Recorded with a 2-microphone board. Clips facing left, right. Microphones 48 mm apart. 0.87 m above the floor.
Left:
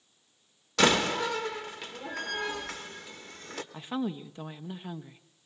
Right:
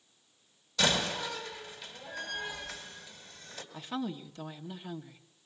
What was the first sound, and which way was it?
A door slam, 75° left (ahead or behind).